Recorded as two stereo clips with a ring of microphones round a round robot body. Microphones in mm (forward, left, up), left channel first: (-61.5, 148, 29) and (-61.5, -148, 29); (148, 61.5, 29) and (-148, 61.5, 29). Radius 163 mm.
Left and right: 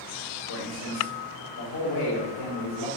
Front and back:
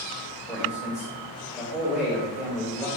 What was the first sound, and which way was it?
A man speaking, 95° left.